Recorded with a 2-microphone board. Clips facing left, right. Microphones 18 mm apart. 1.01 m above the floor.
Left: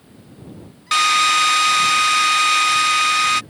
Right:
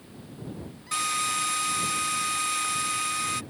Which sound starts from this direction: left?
A drill, at 0.9 s.